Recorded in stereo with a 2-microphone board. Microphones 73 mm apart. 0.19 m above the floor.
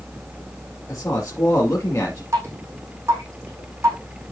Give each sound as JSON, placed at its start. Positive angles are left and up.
{"t": 0.9, "sound": "a woman speaking", "side_deg": 45, "distance_m": 3.5}
{"t": 2.3, "sound": "dripping", "side_deg": -40, "distance_m": 7.0}